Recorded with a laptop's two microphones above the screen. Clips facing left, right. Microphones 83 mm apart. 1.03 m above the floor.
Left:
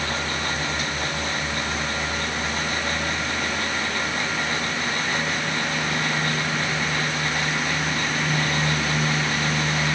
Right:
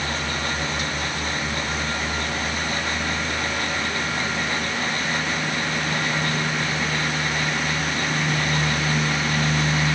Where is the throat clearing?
No throat clearing in this recording.